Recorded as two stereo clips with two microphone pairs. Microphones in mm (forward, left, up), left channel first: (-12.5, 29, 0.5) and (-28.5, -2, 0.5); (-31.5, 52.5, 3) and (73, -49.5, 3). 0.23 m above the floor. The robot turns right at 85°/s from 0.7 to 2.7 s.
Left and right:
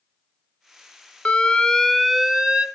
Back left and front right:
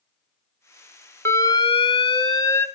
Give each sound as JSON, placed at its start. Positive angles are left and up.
{"t": 1.2, "sound": "an alarm", "azimuth_deg": 75, "distance_m": 0.9}